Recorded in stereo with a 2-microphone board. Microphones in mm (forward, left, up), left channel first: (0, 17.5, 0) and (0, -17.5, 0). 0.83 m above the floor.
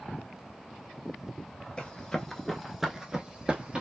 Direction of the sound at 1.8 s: 20° left (ahead or behind).